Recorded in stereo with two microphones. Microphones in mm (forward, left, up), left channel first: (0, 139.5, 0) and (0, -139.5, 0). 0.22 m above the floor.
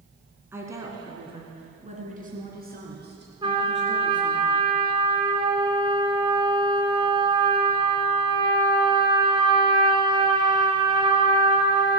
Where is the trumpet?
20° right (ahead or behind), 1.5 m.